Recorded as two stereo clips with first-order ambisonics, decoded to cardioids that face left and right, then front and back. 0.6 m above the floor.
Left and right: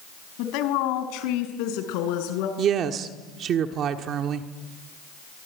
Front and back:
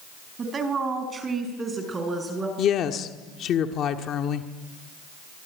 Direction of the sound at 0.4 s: 115° left.